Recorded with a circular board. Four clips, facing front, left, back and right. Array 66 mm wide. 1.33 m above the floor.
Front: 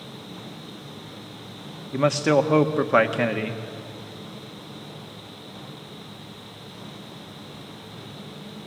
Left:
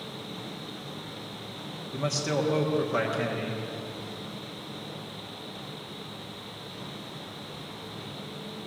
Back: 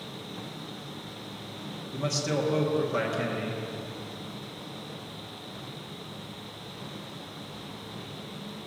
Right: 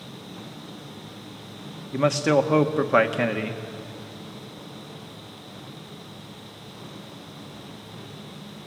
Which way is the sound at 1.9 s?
40° right.